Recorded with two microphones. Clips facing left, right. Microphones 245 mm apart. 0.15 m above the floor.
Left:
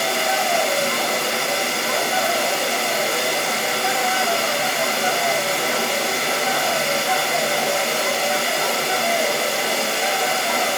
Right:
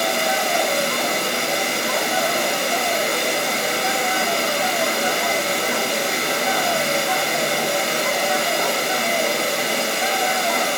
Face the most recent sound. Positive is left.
turn(degrees=-15)  # may be behind; listen again after turning